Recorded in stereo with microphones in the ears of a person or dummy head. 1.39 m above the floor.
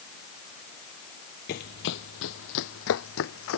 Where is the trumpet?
I don't hear a trumpet.